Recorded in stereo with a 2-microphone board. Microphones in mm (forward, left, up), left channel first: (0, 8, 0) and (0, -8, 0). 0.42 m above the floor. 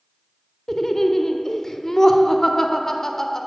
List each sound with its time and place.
0.7 s laughter: 25° left (ahead or behind), 1.0 m